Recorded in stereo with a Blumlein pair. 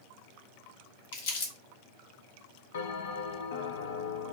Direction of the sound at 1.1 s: 55° left.